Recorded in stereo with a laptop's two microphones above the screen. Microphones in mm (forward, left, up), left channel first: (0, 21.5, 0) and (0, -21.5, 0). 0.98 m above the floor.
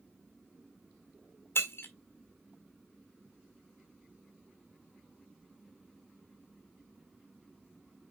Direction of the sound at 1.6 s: 60° left (ahead or behind).